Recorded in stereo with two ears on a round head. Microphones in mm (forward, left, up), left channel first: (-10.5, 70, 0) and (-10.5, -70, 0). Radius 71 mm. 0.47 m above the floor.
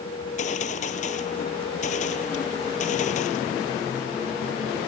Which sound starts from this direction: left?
A gunshot, at 0.2 s.